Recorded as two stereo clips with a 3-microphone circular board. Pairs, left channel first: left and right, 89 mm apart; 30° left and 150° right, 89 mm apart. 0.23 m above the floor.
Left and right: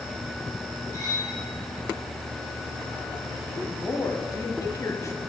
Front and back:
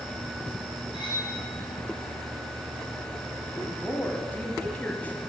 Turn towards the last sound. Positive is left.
turn(degrees=85)